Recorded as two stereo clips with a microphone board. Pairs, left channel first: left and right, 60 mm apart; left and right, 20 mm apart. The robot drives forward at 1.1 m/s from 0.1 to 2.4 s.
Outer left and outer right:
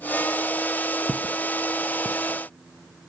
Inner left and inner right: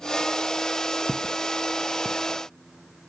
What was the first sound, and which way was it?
Footsteps, centre (ahead or behind).